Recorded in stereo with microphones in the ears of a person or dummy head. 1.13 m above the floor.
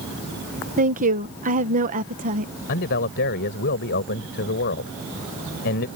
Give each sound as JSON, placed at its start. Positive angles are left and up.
{"t": 0.8, "sound": "a woman speaking", "side_deg": -40}
{"t": 2.7, "sound": "a man speaking", "side_deg": 55}